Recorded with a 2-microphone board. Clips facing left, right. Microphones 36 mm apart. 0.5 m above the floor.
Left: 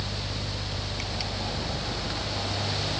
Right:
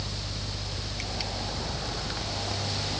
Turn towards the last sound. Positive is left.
No sound to turn to.